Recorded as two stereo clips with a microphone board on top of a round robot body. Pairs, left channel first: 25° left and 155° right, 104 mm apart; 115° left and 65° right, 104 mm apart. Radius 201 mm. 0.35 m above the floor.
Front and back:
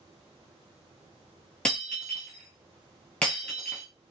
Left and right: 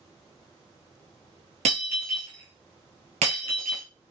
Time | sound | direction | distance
1.6 | breaking glass | 55° right | 0.6 m